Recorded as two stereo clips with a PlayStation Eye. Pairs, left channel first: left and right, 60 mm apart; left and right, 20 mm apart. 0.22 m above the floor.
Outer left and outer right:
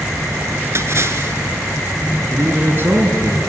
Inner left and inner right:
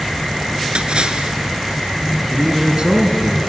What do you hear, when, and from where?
0.8 s a splash: 50° right (ahead or behind), 1.1 m
2.3 s a man speaking: 40° right (ahead or behind), 2.5 m